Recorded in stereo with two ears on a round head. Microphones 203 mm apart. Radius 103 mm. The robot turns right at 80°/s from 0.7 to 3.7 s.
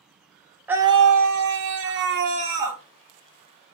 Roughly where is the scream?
Behind.